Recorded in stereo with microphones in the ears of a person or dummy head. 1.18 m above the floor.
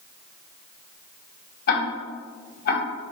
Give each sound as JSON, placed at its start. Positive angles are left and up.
{"t": 1.7, "sound": "ticking", "side_deg": 70, "distance_m": 3.5}